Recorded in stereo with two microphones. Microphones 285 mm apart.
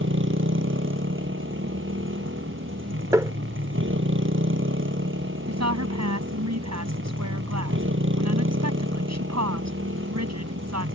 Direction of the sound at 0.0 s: 45° right (ahead or behind).